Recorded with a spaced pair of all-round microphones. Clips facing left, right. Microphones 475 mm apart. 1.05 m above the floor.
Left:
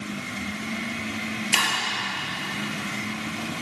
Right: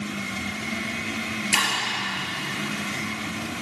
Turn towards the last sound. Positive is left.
turn(degrees=-60)  # may be behind; listen again after turning